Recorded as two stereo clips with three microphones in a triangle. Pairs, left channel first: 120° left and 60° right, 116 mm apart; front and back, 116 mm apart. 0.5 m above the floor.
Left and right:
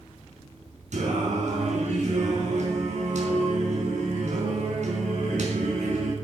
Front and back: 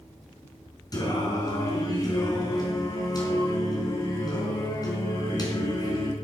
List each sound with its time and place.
0.9 s singing: 55° right, 4 m